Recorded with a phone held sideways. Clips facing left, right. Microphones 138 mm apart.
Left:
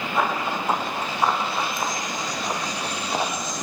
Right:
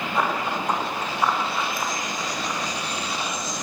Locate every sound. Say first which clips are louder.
0.1 s running footsteps: left 1 dB; centre (ahead or behind), 5.5 m; by 3.3 s 50° left (ahead or behind), 3.5 m